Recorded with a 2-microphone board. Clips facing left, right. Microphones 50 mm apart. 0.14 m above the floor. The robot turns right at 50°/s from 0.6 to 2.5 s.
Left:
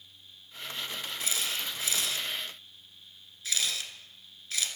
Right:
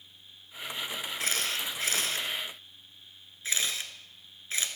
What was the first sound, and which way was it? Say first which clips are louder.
A camera shutter: right 3 dB; 50° right (ahead or behind).